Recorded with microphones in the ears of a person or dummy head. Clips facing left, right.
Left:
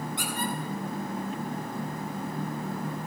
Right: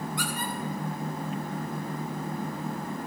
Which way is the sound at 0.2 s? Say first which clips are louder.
Left 1 dB; 20° left (ahead or behind).